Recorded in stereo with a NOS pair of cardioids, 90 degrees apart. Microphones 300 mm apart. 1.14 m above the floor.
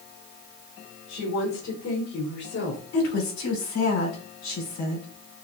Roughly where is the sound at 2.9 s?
Ahead left.